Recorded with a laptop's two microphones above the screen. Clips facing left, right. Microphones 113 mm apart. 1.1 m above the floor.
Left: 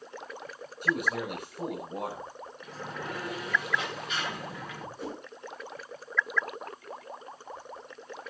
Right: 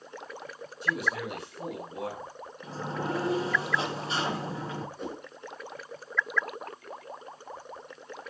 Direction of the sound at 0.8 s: 60° left (ahead or behind).